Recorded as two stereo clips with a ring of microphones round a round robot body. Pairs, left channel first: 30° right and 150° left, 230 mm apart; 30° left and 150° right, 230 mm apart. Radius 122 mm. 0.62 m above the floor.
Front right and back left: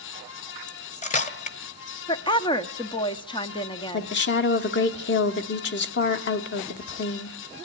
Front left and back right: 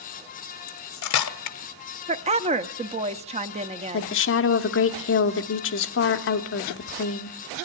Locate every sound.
0.7 s cutlery clinking: 30° left, 1.0 m
2.1 s a woman speaking: 95° right, 1.0 m
3.9 s a woman speaking: 5° left, 1.1 m